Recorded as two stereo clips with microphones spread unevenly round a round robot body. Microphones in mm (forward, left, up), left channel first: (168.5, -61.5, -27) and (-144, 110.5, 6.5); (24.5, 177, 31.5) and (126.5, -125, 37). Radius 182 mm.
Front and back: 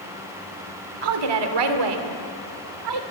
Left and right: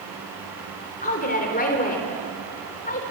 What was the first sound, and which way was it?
A woman speaking, 175° left.